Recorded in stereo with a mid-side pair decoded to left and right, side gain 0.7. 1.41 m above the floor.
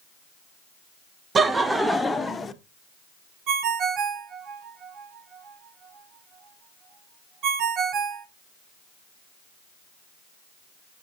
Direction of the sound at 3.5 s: 45° right.